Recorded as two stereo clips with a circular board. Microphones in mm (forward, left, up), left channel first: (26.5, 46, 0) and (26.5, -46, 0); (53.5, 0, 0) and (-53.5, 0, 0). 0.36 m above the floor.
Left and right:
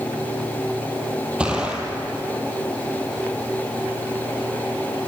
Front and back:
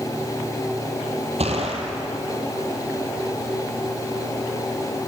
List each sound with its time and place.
1.4 s a gunshot: 170° right, 3 m